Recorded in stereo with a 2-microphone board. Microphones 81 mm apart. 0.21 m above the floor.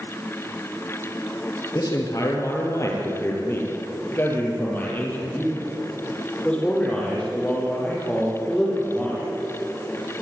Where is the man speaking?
50° left (ahead or behind), 5.5 m; by 9.2 s 5° left (ahead or behind), 11 m.